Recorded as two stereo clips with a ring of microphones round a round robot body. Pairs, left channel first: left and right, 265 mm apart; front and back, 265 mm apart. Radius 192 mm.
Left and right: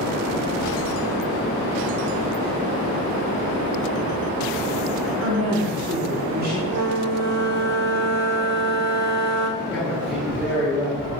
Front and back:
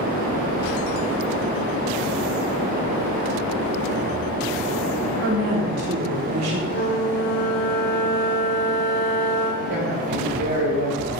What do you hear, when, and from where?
5.2 s a woman speaking: 130° right, 3 m; by 6.6 s 155° right, 2 m
6.7 s a flute: 65° right, 1.6 m
9.6 s a man speaking: 175° left, 4 m